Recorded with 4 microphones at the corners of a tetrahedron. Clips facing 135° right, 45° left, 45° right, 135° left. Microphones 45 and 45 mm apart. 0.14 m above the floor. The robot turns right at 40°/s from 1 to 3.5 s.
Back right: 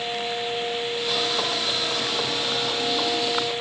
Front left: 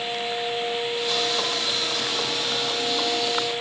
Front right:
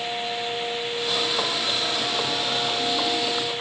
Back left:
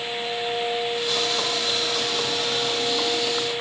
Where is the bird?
No bird in this recording.